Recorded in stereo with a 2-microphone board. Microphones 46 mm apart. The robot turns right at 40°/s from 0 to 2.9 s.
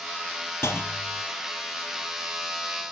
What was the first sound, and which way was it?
A clunk, 70° left (ahead or behind).